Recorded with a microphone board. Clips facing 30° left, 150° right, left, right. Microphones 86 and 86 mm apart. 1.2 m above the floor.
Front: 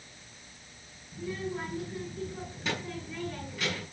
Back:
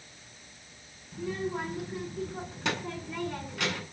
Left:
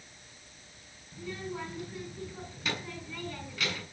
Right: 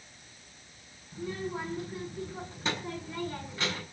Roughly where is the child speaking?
Behind right.